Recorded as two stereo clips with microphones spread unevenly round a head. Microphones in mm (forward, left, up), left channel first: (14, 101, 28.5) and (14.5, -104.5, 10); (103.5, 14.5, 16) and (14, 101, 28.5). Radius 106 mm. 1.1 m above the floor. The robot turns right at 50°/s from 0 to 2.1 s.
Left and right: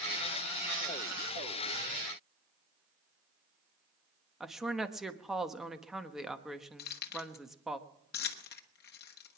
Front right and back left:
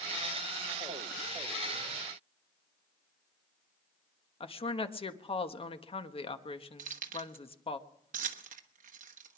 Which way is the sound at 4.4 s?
Straight ahead.